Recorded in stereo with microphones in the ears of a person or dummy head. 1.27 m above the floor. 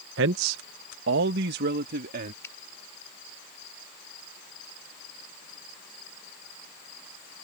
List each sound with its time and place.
0.2 s a man speaking: 65° right (ahead or behind); by 2.3 s 50° right (ahead or behind)
2.4 s a finger snap: 15° left (ahead or behind)